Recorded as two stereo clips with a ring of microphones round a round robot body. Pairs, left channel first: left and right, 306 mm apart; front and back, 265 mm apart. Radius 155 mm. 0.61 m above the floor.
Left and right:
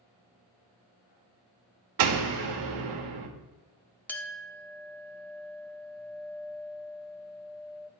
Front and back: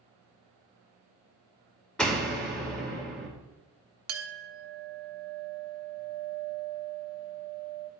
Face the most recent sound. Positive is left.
turn(degrees=175)